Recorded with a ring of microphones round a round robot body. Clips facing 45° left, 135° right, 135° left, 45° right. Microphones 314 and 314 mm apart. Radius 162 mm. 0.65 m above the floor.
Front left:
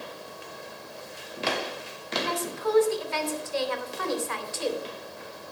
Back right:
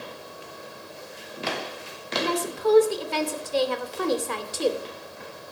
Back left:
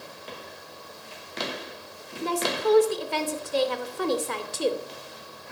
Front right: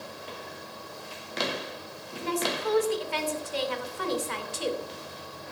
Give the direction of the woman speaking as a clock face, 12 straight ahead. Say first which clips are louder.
Back right 5 dB, back left 4 dB; 6 o'clock.